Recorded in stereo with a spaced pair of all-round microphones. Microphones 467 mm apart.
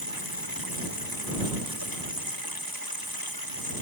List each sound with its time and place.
0.0 s running water: 45° left (ahead or behind)